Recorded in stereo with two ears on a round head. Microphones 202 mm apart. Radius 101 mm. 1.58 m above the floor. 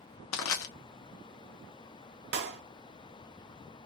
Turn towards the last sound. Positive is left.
turn(degrees=-50)  # may be behind; listen again after turning